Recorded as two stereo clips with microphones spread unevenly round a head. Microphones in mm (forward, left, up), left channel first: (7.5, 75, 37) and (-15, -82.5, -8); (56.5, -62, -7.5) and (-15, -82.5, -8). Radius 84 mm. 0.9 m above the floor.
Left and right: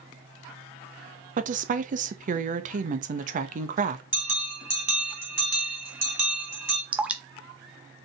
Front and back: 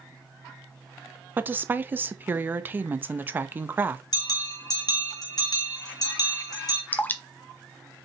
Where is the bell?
15° right, 2.5 m.